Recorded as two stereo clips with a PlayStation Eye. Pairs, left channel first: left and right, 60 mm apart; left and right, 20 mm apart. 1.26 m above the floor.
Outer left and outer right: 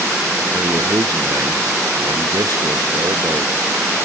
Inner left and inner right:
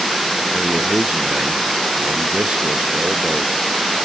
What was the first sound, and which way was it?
A man speaking, 85° right.